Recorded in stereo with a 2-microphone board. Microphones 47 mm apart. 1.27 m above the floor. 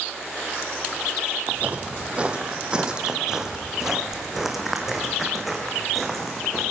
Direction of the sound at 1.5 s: 35° right (ahead or behind).